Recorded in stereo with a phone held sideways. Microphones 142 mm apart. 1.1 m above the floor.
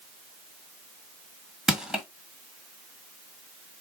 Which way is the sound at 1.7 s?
5° right (ahead or behind).